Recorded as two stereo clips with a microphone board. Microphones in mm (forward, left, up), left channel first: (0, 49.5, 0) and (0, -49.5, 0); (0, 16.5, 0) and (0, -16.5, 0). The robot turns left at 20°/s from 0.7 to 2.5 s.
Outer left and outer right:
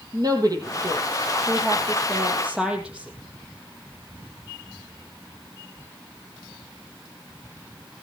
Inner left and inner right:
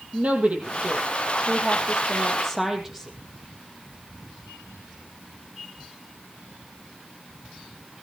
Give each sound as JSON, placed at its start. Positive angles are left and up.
{"t": 0.1, "sound": "a woman speaking", "azimuth_deg": -130, "distance_m": 4.5}